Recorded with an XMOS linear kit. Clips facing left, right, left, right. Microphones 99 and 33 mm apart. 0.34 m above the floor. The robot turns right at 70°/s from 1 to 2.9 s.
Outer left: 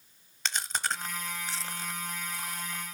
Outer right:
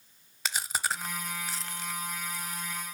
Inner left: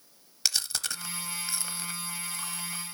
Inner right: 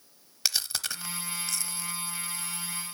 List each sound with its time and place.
0.5 s chewing: 10° right (ahead or behind), 0.8 m; by 2.9 s 50° left (ahead or behind), 0.8 m